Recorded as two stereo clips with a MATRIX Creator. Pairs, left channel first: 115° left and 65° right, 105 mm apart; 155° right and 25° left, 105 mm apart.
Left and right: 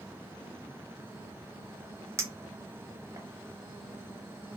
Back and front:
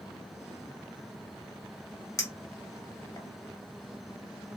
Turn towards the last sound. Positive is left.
turn(degrees=-115)